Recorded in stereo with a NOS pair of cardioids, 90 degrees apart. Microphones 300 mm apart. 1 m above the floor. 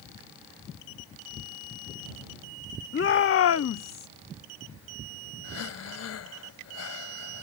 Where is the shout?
40° left; by 4.1 s 65° left.